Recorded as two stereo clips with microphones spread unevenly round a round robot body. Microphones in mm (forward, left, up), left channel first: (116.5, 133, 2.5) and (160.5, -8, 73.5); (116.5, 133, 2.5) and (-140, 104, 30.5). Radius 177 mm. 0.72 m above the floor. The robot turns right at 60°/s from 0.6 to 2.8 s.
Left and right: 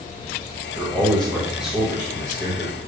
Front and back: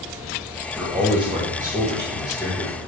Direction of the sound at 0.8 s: 90° left.